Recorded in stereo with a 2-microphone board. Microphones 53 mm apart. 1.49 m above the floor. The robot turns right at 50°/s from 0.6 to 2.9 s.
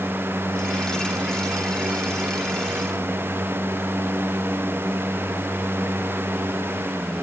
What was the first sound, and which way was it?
Only background noise.